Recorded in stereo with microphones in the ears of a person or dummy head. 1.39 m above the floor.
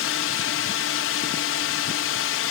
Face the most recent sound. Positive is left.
turn(degrees=60)  # may be behind; listen again after turning